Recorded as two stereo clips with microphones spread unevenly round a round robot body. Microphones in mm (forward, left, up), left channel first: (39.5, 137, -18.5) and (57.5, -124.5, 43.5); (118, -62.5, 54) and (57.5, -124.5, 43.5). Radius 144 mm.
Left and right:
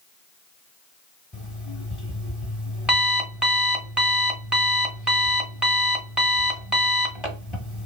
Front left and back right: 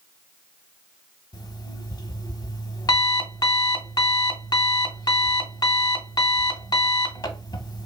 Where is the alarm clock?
15° left, 0.7 m.